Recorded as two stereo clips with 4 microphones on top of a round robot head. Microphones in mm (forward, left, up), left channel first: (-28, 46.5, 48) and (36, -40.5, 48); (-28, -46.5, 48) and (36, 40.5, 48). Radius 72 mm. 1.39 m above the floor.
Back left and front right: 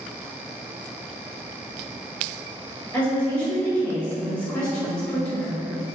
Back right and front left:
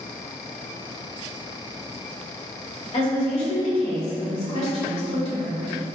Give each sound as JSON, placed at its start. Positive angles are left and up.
{"t": 2.9, "sound": "a woman speaking", "azimuth_deg": -160, "distance_m": 1.4}